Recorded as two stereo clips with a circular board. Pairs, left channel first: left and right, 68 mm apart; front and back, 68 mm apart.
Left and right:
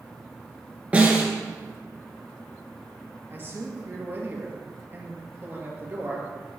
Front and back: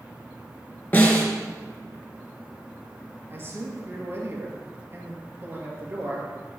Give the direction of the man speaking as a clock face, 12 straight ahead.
5 o'clock.